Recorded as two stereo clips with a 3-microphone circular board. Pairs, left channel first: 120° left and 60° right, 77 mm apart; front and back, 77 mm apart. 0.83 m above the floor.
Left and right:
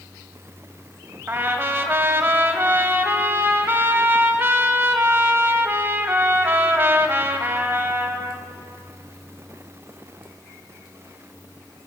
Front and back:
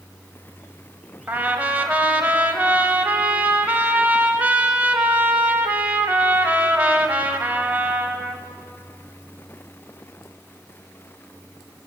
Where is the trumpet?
115° right, 1.0 m.